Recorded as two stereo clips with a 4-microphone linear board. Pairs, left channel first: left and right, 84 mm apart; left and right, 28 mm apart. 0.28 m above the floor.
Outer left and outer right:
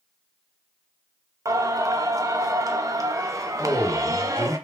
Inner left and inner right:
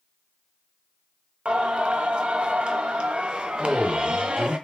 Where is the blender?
No blender in this recording.